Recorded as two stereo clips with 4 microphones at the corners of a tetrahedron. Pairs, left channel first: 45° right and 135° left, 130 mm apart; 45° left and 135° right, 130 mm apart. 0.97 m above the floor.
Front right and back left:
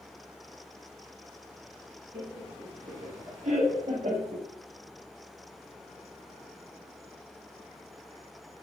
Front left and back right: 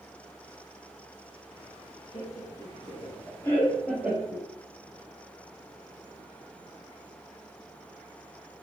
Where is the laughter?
70° left, 1.5 m; by 4.5 s 160° left, 1.2 m.